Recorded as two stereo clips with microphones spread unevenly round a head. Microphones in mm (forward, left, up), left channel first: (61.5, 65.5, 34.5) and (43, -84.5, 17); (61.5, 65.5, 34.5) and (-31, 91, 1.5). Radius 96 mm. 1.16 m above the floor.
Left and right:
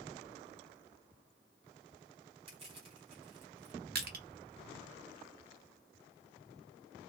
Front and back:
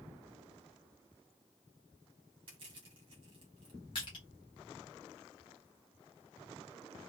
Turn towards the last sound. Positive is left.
turn(degrees=-85)